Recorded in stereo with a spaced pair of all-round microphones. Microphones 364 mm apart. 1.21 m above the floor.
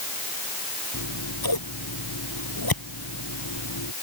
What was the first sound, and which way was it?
Scissors, 75° left (ahead or behind).